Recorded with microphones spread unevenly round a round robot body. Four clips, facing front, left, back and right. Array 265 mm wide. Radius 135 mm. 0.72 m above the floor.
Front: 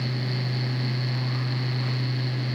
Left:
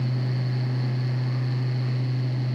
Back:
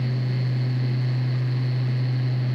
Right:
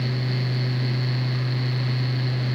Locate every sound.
Only background noise.